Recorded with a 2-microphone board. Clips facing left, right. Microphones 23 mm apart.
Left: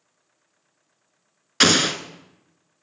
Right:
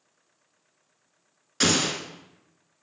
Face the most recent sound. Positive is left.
turn(degrees=45)  # may be behind; listen again after turning